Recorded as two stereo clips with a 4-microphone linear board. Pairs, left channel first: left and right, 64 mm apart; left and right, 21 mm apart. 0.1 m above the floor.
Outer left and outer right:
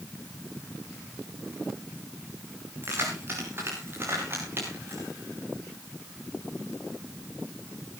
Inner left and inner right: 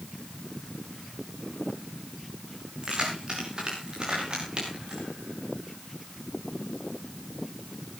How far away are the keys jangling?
About 10 m.